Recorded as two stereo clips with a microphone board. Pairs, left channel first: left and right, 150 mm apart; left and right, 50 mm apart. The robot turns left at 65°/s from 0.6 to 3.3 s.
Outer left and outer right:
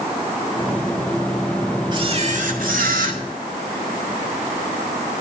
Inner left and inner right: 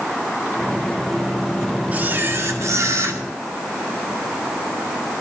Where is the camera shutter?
35° right, 2 m; by 3.2 s 115° right, 2 m.